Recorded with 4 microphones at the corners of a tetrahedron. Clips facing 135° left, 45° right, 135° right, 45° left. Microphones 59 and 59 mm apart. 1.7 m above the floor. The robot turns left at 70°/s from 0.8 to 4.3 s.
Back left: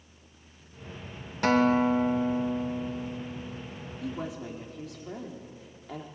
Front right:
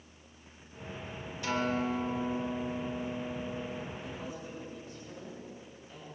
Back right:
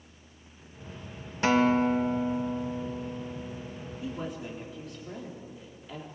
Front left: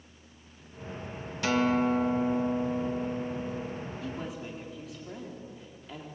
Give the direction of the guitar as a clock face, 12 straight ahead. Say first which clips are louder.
Back left 9 dB, back right 3 dB; 6 o'clock.